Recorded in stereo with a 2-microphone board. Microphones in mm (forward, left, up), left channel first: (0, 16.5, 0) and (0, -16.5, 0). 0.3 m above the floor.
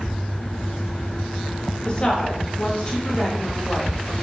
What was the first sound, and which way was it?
A woman speaking, 30° left (ahead or behind).